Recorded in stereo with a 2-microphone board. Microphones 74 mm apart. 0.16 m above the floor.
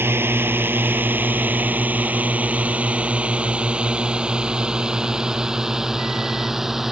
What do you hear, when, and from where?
0.0 s a drone: 30° right (ahead or behind); by 6.9 s 5° right (ahead or behind)